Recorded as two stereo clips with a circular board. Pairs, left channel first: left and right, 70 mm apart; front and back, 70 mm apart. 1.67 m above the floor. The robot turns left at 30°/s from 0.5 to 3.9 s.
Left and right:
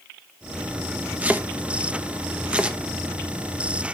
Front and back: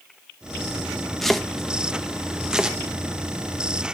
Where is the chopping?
85° right, 0.9 m; by 2.8 s 130° right, 0.9 m.